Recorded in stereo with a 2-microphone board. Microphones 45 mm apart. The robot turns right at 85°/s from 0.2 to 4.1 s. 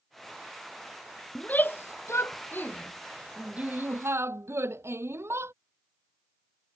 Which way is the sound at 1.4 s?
25° left (ahead or behind).